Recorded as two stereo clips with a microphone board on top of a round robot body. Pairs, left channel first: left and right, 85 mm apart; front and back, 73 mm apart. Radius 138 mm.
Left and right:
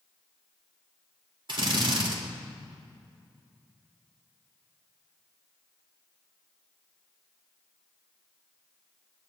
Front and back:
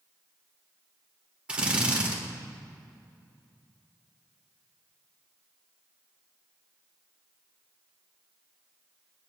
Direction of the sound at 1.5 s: 105° right.